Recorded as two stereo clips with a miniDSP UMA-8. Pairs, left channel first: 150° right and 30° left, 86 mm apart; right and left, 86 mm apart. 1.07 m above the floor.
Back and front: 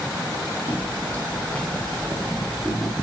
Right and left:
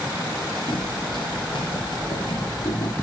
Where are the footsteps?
85° right, 3 m; by 2.9 s 65° right, 4.5 m.